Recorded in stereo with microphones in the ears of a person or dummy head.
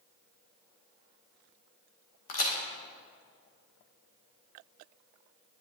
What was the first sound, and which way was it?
A crack, 45° left (ahead or behind).